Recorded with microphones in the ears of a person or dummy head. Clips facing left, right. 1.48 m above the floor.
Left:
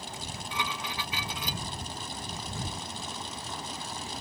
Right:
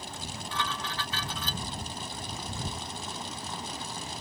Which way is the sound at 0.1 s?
10° left (ahead or behind).